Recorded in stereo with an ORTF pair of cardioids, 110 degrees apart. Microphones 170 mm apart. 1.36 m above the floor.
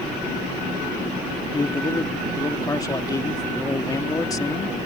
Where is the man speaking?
20° left.